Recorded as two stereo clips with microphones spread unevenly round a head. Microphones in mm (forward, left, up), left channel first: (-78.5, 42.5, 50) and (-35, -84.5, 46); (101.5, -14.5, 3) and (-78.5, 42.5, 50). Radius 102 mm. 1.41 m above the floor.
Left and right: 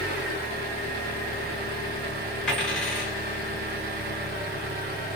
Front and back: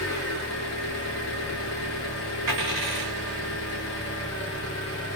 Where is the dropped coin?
Straight behind, 1.2 m.